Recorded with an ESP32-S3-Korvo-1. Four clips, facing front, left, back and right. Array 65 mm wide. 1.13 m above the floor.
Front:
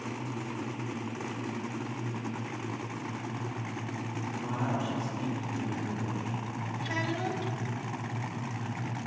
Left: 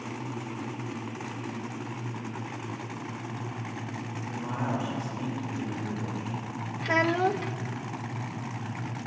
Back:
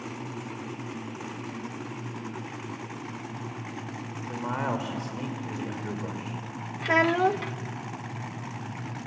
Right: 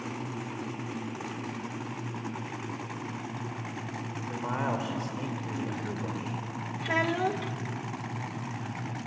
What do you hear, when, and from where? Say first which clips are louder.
4.3 s a man speaking: right 1 dB, back 4 dB; 150° right, 4.5 m
6.8 s a child speaking: left 3 dB, back 12 dB; 165° left, 0.8 m